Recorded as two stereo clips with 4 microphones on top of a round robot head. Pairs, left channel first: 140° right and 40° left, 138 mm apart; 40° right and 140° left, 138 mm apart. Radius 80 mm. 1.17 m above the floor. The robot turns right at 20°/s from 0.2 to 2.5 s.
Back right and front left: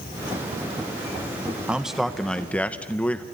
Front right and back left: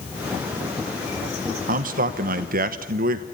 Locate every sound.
1.7 s a man speaking: 125° left, 1.1 m; by 3.2 s 140° left, 1.1 m